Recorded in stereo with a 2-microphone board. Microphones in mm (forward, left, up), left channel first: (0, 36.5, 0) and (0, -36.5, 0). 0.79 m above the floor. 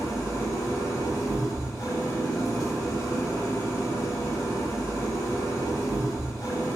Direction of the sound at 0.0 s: 55° left (ahead or behind).